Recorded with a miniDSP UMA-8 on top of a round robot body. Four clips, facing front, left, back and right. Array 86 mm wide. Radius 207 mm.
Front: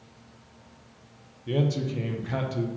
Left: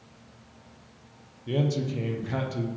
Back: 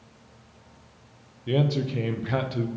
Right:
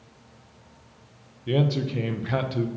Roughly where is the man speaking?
Behind right.